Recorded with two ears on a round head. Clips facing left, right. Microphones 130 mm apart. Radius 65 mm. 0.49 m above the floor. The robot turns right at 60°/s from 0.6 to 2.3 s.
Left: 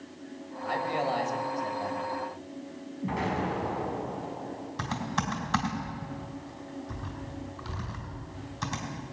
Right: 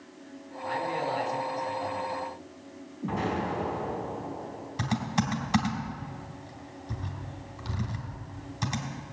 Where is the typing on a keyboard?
15° right (ahead or behind), 3 m.